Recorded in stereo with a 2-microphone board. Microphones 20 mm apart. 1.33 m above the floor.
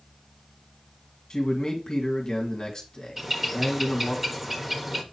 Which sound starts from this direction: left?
A man speaking, at 1.3 s.